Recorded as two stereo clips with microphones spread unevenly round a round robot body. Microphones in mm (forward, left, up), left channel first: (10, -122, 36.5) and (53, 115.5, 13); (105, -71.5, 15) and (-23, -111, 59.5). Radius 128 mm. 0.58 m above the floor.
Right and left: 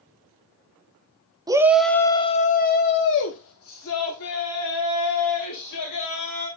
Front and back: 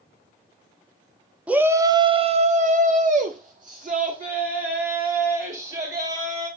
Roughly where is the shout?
Left.